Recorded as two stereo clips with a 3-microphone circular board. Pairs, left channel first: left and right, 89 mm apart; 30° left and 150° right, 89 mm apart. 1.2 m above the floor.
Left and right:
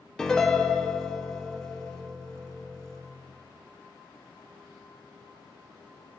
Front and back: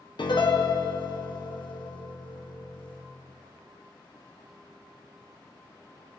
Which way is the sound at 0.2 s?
10° left.